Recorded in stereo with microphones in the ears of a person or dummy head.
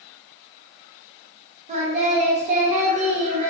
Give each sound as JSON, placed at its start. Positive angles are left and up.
{"t": 1.7, "sound": "singing", "side_deg": -40, "distance_m": 0.6}